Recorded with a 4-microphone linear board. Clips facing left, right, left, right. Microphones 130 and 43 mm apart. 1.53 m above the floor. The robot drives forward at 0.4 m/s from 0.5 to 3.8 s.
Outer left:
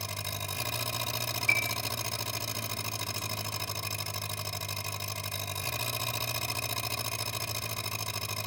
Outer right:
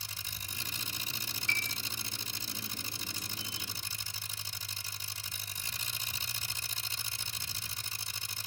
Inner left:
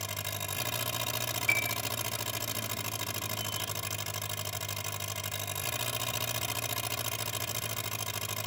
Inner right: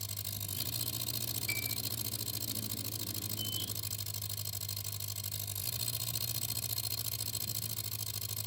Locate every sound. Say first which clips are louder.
0.0 s an engine running: outer left 11 dB, inner left 9 dB; 80° left; by 8.5 s 75° left (ahead or behind)
1.5 s a piano: outer left 4 dB, inner left 11 dB; 55° left (ahead or behind); by 1.8 s 45° left (ahead or behind)